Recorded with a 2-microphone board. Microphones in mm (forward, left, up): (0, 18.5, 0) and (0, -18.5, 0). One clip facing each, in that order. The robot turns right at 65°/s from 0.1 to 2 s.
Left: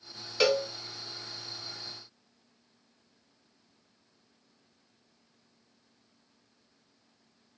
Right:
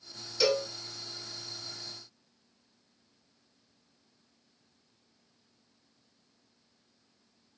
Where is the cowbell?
45° left (ahead or behind), 0.8 m; by 0.6 s 55° left (ahead or behind), 0.8 m.